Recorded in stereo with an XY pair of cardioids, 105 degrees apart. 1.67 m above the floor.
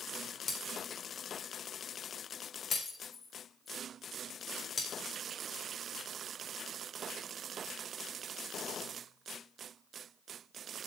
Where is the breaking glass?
40° left, 4 m.